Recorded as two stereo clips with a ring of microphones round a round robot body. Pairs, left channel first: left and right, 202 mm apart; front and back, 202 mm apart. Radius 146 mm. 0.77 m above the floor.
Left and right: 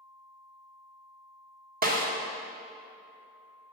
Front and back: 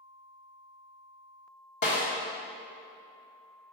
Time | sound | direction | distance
1.8 | a snare drum | 45° right | 1.5 m